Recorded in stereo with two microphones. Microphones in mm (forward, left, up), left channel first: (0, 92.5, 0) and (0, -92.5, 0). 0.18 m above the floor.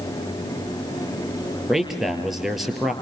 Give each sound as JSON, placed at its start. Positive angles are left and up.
{"t": 1.7, "sound": "a man speaking", "side_deg": 0, "distance_m": 4.0}